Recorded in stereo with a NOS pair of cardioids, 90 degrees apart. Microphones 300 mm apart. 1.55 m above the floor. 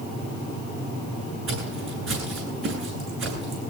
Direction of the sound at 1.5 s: 55° right.